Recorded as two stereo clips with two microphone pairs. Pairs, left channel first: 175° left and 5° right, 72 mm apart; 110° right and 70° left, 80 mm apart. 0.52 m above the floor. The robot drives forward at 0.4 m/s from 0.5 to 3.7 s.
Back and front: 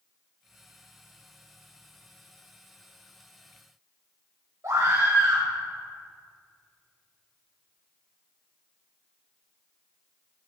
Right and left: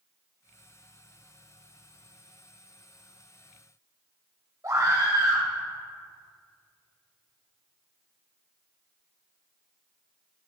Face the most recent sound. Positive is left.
turn(degrees=30)